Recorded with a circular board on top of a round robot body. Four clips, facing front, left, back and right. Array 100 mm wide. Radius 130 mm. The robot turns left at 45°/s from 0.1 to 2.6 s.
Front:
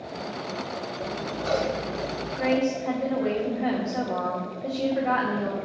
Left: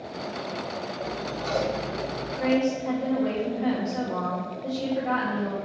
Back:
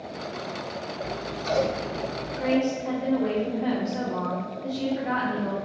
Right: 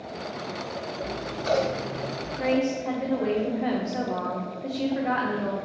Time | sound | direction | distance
1.0 | scissors | 50° right | 1.5 m
2.4 | a woman speaking | 45° right | 1.5 m